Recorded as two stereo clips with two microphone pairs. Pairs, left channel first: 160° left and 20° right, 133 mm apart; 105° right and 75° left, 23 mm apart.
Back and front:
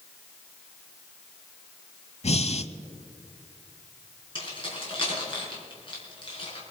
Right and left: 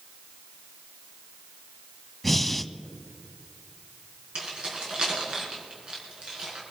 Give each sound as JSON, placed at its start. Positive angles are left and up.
{"t": 2.2, "sound": "breathing", "azimuth_deg": 170, "distance_m": 0.6}
{"t": 4.3, "sound": "keys jangling", "azimuth_deg": 110, "distance_m": 4.5}